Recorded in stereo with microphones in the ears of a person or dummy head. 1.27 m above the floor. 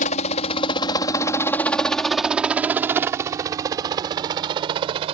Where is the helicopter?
45° left (ahead or behind); by 5.2 s 30° right (ahead or behind).